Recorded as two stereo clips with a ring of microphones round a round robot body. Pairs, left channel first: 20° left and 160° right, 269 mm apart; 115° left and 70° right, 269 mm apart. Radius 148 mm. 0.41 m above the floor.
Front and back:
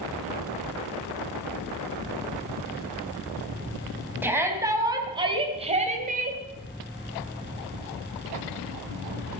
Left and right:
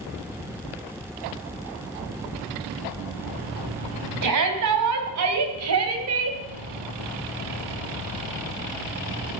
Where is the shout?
75° right, 3.5 m; by 6.4 s 105° right, 2.5 m.